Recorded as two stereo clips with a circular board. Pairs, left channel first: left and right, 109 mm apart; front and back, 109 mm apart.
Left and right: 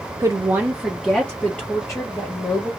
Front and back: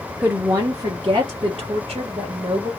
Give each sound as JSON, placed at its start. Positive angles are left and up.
{"t": 0.2, "sound": "a woman speaking", "azimuth_deg": -110, "distance_m": 0.6}